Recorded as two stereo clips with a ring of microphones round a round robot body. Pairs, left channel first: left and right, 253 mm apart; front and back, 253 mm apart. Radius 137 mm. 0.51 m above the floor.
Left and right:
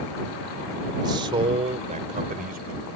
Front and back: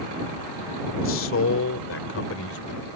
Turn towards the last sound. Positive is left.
turn(degrees=-35)